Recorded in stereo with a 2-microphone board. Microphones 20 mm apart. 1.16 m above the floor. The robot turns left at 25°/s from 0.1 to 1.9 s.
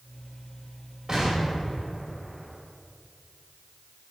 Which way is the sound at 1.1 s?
30° right (ahead or behind).